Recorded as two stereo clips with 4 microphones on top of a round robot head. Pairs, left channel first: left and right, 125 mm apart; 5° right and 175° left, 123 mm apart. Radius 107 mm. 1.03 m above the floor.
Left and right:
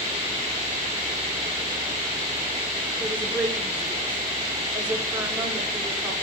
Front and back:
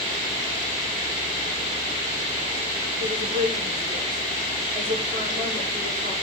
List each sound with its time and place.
3.0 s a woman speaking: 170° right, 4 m